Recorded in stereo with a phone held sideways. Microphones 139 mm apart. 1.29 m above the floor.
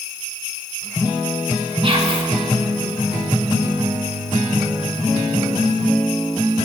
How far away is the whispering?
About 1.7 m.